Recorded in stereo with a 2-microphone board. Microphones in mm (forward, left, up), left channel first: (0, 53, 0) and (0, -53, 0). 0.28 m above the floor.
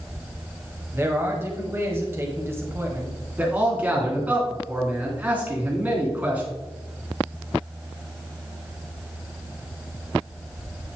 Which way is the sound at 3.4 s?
15° right (ahead or behind).